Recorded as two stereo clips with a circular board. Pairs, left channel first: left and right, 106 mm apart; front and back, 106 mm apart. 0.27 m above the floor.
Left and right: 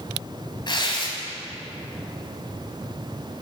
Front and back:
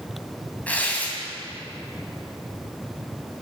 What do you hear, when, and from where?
0.7 s tearing paper: 70° left, 2 m